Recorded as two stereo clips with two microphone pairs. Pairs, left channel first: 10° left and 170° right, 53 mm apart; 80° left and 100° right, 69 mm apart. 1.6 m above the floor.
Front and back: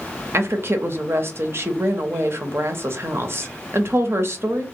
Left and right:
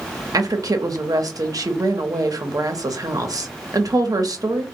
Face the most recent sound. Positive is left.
turn(degrees=-130)